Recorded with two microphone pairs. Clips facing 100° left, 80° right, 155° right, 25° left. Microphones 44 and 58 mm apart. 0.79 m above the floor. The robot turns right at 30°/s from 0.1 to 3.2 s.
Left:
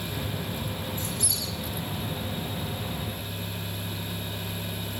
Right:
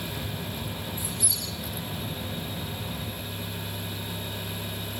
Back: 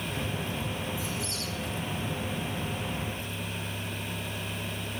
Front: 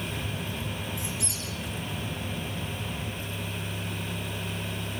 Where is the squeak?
5° right, 8 m; by 1.4 s 10° left, 8 m.